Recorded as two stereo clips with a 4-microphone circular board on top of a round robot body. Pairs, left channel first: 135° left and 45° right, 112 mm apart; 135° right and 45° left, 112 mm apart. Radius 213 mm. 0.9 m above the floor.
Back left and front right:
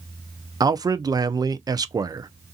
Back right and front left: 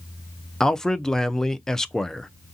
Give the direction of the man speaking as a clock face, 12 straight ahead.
2 o'clock.